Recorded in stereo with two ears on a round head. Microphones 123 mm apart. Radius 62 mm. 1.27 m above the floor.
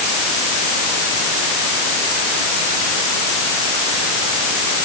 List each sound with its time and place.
Only background noise.